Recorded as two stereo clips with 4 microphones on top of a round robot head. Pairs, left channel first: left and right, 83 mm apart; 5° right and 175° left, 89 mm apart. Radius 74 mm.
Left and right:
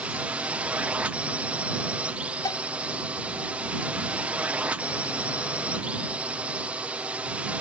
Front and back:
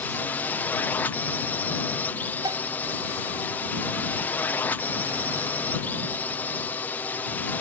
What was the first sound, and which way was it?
A drone, 40° right.